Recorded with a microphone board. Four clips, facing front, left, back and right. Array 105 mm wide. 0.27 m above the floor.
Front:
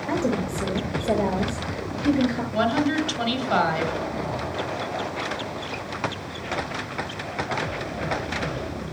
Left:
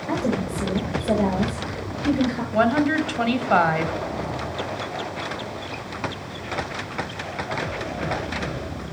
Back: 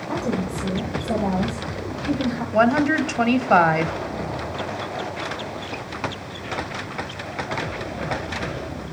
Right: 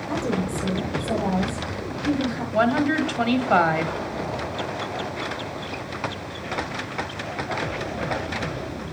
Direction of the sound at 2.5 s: 175° left.